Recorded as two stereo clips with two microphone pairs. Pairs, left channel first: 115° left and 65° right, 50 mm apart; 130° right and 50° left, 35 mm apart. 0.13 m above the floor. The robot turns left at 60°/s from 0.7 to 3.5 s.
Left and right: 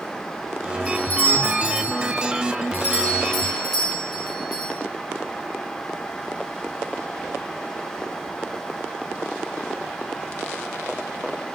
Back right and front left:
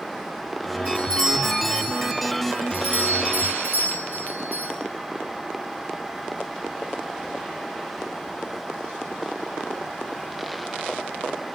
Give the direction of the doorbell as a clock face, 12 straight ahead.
6 o'clock.